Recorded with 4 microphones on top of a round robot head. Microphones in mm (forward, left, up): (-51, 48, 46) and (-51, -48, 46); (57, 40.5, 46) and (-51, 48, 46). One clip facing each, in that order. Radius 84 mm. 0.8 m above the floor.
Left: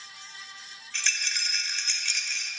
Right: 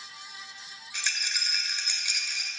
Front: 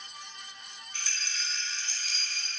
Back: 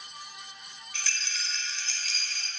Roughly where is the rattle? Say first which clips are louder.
Left 1 dB, back 2 dB; behind.